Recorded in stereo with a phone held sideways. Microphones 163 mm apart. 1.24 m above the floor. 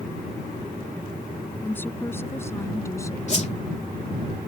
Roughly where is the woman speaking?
Centre.